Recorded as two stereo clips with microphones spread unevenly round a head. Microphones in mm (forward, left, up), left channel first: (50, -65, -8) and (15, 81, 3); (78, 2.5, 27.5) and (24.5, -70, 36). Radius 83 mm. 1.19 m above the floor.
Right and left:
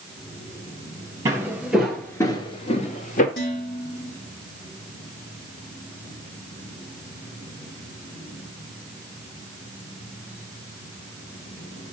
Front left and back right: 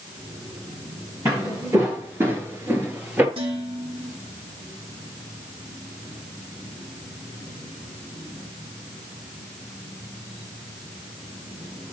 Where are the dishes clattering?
115° right, 4 m.